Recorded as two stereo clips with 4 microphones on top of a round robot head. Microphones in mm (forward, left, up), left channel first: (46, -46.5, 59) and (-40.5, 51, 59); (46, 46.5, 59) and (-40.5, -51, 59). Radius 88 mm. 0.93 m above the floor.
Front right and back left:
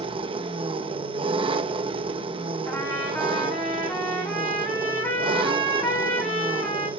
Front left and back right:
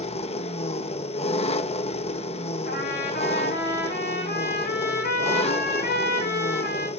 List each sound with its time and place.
0.0 s an engine running: 85° left, 1.1 m
2.7 s a trumpet: 35° left, 9 m